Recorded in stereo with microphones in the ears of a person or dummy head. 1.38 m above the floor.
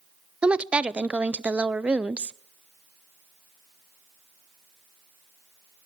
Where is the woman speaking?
10° right (ahead or behind), 0.5 m.